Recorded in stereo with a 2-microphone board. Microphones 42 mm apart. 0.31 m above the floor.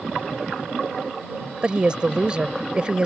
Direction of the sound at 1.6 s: 25° right (ahead or behind).